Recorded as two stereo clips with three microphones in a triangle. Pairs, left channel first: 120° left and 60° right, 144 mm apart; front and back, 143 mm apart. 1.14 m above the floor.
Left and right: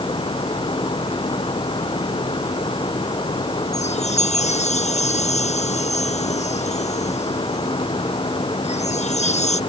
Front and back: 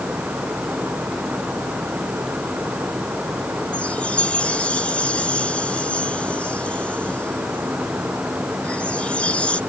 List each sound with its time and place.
3.7 s a chime: 80° left